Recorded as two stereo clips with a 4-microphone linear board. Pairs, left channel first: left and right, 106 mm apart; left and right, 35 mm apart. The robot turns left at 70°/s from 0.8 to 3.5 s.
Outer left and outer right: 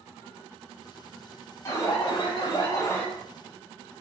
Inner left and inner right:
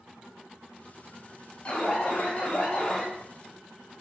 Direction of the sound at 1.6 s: 135° left.